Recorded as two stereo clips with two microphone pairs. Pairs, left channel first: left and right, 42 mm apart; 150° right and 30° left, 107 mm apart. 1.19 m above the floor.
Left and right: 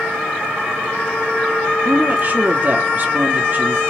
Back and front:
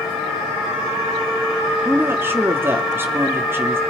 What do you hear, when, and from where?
1.9 s a woman speaking: 40° right, 3 m